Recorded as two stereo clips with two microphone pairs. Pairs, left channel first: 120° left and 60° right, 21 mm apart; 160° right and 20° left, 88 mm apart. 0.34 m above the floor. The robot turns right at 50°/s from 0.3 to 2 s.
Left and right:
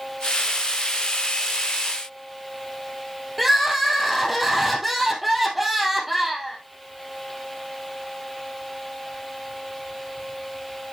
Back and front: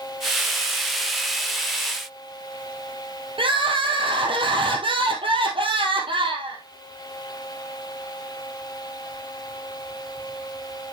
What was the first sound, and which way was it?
Crying, 30° left.